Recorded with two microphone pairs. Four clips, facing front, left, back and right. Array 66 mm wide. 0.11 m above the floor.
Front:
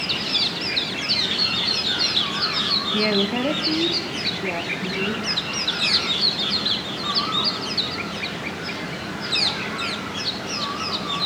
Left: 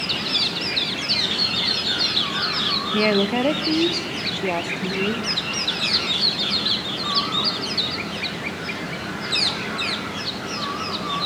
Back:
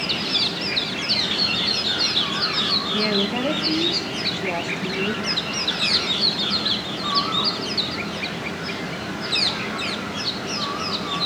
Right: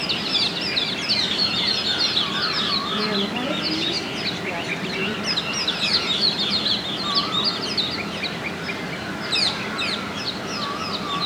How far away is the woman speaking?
About 2.5 m.